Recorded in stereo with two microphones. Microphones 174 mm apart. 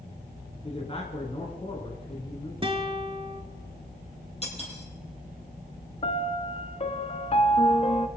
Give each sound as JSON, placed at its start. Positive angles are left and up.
{"t": 0.6, "sound": "a man speaking", "side_deg": 35, "distance_m": 1.4}
{"t": 2.6, "sound": "a guitar", "side_deg": -30, "distance_m": 1.1}
{"t": 4.4, "sound": "cutlery clinking", "side_deg": 35, "distance_m": 3.5}
{"t": 6.0, "sound": "a piano", "side_deg": 35, "distance_m": 0.6}